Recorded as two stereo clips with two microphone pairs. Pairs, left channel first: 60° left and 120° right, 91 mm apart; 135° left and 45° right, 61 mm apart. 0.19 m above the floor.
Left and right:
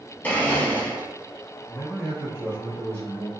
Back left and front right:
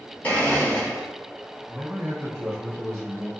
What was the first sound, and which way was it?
A blender, 110° left.